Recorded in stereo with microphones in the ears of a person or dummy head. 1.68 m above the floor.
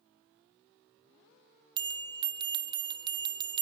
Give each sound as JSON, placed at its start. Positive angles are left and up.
{"t": 1.8, "sound": "a bell", "side_deg": -20, "distance_m": 1.0}